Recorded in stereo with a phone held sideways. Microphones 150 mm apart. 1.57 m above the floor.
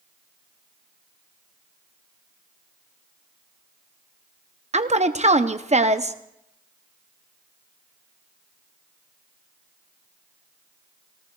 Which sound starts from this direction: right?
A woman speaking, at 4.7 s.